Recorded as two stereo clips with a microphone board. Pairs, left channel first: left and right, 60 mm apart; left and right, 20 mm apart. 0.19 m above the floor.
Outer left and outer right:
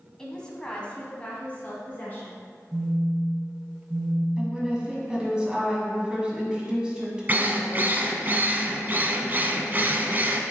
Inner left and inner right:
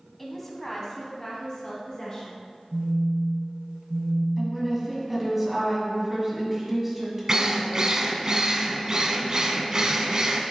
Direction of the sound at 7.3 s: 35° right (ahead or behind).